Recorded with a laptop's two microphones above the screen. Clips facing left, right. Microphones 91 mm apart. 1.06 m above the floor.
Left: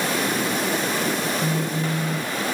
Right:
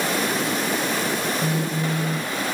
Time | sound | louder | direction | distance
1.4 | a phone buzzing | even | 10° right (ahead or behind) | ?